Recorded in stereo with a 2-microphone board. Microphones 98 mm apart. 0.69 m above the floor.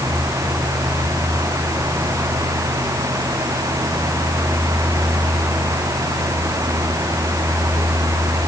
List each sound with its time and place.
Only background noise.